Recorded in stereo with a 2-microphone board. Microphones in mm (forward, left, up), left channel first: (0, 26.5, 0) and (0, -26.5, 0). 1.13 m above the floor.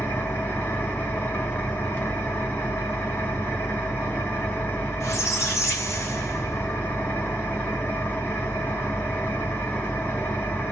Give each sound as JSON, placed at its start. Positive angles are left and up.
{"t": 0.0, "sound": "an engine running", "side_deg": 45, "distance_m": 1.0}
{"t": 5.0, "sound": "a squeak", "side_deg": 70, "distance_m": 1.4}